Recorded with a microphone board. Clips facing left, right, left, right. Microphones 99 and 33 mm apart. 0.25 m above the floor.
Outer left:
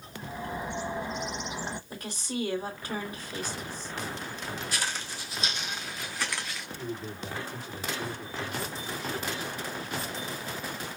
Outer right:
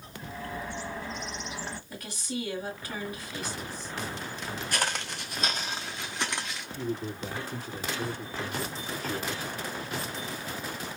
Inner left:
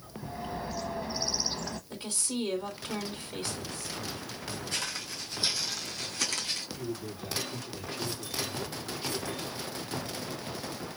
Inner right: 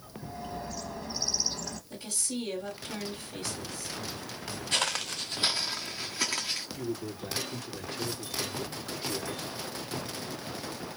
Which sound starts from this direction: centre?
A bird, at 0.2 s.